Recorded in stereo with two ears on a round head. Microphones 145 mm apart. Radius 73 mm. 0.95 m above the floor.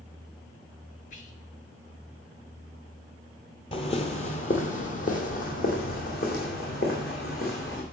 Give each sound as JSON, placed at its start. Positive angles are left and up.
{"t": 1.1, "sound": "whispering", "side_deg": 50, "distance_m": 1.2}
{"t": 3.7, "sound": "footsteps", "side_deg": 35, "distance_m": 1.2}